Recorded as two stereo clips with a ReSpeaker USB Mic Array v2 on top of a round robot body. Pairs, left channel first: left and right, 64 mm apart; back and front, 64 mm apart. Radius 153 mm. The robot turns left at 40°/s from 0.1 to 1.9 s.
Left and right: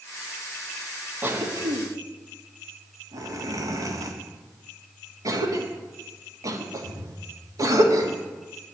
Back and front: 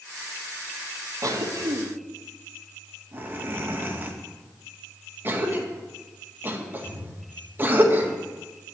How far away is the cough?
About 2.0 m.